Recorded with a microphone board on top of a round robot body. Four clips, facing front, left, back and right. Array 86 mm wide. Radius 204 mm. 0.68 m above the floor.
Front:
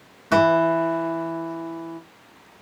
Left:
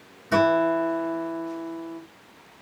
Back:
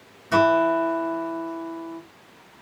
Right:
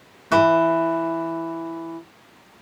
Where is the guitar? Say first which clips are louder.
Right 4 dB, front 1 dB; 55° right, 1.6 m.